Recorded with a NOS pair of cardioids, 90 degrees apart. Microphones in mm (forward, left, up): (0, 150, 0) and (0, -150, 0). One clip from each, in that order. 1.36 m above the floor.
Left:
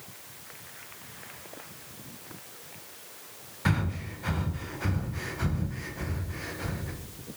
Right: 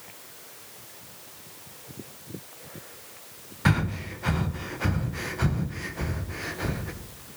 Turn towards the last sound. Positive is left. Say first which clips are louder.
# right 5 dB
turn(degrees=-20)